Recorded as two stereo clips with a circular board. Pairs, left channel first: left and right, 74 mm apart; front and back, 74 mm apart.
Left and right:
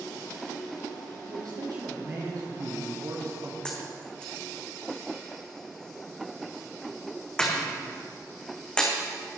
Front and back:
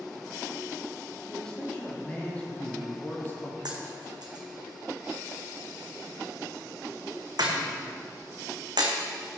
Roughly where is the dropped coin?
Behind.